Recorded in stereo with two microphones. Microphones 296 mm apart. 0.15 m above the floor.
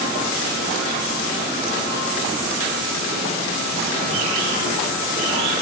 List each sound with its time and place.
Only background noise.